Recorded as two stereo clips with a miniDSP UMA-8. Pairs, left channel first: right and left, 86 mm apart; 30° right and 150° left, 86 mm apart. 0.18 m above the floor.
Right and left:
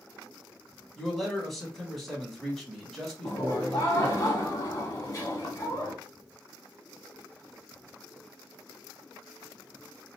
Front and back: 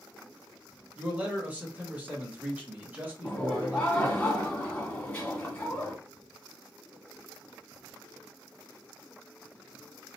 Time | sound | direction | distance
1.0 | a man speaking | 175° right | 1.2 m
3.2 | laughter | 95° right | 1.6 m